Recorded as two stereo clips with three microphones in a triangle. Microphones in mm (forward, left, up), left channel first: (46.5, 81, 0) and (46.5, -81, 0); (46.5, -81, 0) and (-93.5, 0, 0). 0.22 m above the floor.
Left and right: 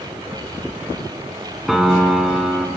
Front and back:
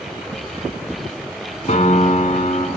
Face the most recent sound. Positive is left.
turn(degrees=0)